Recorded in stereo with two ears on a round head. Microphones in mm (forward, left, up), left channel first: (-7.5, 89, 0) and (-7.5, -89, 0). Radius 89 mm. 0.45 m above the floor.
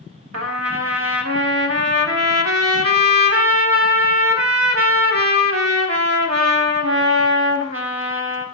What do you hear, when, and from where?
0.3 s a trumpet: 70° right (ahead or behind), 0.7 m